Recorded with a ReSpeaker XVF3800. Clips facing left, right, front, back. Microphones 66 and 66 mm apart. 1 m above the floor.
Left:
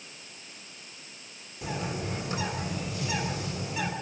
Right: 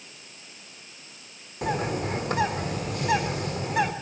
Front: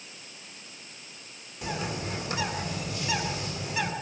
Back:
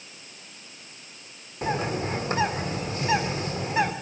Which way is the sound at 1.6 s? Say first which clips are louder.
Right 6 dB, back 6 dB; 125° right.